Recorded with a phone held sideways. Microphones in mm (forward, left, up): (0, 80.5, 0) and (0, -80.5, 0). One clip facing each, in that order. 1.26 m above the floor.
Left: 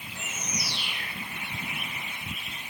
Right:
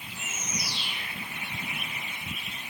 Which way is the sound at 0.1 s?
85° left.